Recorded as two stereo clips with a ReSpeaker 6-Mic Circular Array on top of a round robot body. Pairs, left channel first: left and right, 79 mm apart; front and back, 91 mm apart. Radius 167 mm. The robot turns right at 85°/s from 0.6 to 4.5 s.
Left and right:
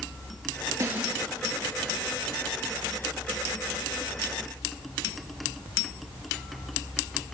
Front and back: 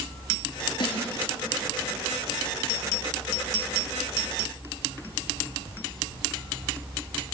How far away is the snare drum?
About 5 m.